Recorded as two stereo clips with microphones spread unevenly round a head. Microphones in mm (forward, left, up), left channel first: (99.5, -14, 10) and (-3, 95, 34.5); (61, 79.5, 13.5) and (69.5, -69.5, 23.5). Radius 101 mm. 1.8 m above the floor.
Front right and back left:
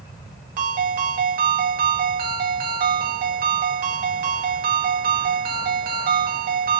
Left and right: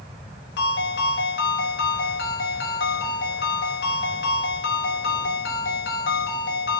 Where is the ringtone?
115° left, 3.5 m.